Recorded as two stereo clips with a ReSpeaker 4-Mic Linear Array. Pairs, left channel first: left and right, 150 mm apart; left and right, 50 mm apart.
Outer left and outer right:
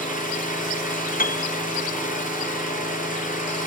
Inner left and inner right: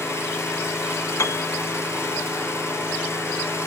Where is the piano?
75° left (ahead or behind), 0.7 m.